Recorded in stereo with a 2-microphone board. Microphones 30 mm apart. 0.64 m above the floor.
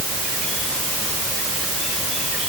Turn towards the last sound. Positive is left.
No sound to turn to.